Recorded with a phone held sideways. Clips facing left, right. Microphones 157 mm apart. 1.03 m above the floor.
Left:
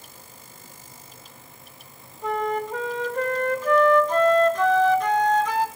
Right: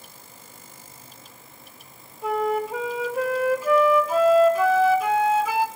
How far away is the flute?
About 1.3 m.